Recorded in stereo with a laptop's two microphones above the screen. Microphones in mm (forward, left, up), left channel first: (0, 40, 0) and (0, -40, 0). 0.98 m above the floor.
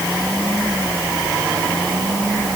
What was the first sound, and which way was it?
Only background noise.